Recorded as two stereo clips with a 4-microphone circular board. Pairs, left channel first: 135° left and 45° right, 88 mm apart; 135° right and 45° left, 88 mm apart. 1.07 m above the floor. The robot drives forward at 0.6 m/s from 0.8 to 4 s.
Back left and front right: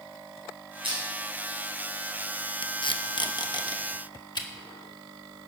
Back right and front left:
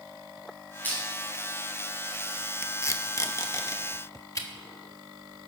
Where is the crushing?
65° right, 7 m.